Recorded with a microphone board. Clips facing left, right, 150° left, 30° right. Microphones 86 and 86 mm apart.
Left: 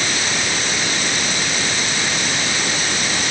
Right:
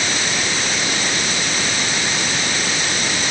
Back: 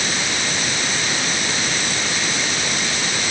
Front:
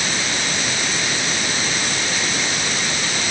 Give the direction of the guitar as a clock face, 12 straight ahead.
I don't hear a guitar.